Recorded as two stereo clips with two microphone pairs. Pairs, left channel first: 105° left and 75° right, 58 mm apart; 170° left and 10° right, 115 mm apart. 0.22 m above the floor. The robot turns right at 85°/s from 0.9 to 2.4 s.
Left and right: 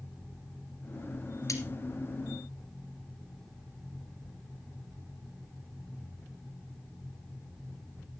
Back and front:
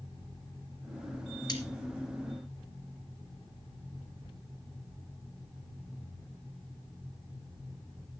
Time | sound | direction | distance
1.5 | cutlery clinking | 120° left | 2.5 m